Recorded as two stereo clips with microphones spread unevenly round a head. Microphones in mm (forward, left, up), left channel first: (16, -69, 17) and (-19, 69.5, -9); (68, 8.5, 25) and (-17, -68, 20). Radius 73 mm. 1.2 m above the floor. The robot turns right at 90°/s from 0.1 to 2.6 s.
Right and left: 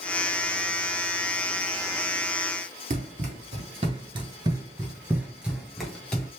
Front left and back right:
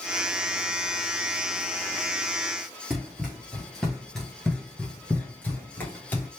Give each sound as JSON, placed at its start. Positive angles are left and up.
{"t": 2.9, "sound": "running footsteps", "azimuth_deg": 135, "distance_m": 1.5}